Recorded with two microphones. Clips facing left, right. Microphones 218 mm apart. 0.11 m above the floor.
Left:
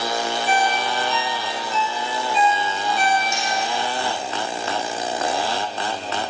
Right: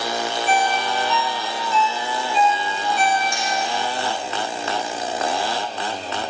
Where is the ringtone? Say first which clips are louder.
Right 2 dB; 35° left (ahead or behind), 2 m.